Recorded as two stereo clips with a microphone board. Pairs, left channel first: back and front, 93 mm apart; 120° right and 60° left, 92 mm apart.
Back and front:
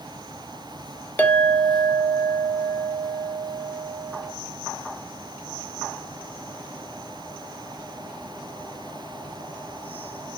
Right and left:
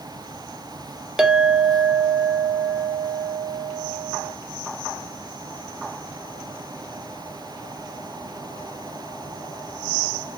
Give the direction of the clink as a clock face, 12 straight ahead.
7 o'clock.